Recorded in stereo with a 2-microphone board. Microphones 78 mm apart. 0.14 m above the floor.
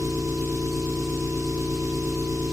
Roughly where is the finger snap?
No finger snap in this recording.